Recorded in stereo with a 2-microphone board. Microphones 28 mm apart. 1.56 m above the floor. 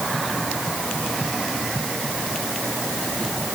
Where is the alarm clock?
No alarm clock in this recording.